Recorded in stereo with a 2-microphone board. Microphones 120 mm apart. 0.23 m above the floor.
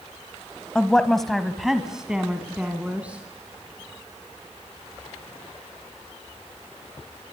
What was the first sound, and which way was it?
A woman speaking, 5° left (ahead or behind).